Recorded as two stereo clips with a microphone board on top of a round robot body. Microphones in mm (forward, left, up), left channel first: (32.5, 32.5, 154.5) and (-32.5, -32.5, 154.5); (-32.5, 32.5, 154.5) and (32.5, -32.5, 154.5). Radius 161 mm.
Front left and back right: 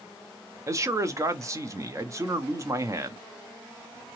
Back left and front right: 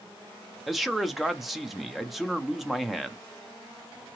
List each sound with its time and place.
0.7 s a man speaking: 135° right, 0.9 m